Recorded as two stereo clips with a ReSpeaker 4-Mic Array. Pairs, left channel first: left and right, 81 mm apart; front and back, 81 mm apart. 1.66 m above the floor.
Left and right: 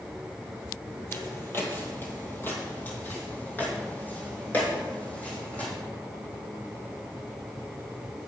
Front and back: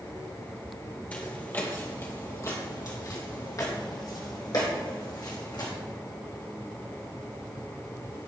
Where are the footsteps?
60° left, 1.9 m; by 5.7 s 20° left, 4 m.